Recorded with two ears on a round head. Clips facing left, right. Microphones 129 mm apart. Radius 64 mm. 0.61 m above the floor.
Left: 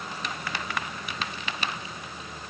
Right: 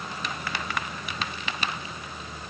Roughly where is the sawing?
I don't hear sawing.